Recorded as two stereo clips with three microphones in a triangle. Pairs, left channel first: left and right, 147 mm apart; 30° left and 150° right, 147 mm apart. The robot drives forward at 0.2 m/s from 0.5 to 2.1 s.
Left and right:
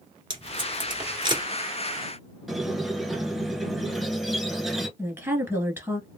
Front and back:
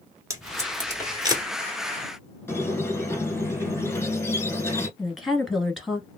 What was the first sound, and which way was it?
Tape being pulled, 100° right.